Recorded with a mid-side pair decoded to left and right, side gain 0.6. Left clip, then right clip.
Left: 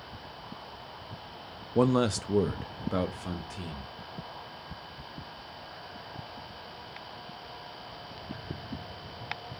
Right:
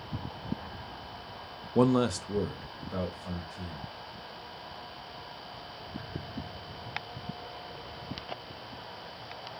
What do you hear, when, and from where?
1.8 s a man speaking: 5° right, 0.5 m; by 3.9 s 60° left, 1.2 m